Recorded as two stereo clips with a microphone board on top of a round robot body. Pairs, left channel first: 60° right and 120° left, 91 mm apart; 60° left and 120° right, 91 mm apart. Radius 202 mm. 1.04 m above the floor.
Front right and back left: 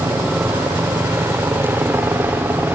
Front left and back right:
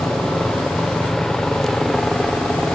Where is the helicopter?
140° left.